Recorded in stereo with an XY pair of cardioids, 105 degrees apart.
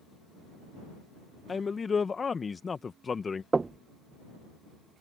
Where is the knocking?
25° right.